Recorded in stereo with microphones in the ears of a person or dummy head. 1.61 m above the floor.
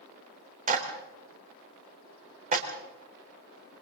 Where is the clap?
45° right (ahead or behind), 4 m.